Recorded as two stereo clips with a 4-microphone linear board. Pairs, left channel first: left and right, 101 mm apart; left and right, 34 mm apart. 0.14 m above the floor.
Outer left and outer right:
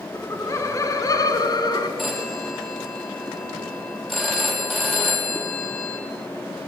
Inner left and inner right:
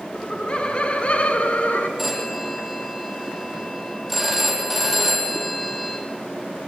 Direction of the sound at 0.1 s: 25° left (ahead or behind).